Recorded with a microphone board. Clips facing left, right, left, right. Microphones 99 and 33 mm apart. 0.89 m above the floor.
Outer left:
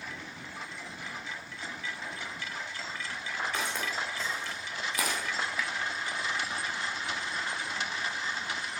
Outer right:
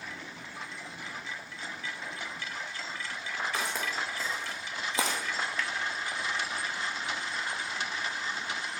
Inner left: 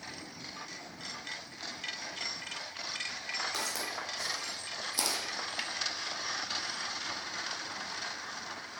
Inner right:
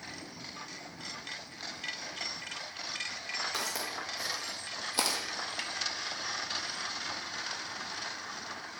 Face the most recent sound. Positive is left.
turn(degrees=5)  # may be behind; listen again after turning